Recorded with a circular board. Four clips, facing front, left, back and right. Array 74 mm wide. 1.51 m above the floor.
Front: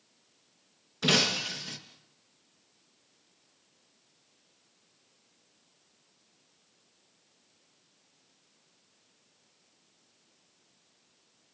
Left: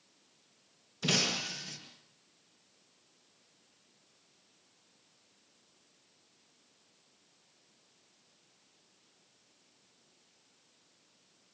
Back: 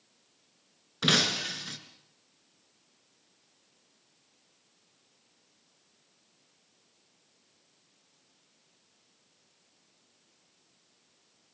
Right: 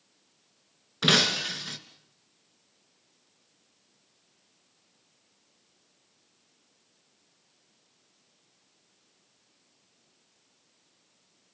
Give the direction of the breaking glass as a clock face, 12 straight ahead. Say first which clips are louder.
Right 8 dB, even; 4 o'clock.